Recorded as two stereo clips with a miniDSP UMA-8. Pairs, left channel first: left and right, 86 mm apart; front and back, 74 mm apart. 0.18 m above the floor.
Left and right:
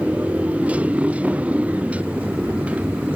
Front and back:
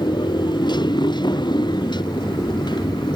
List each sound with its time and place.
0.0 s a motorcycle: 15° right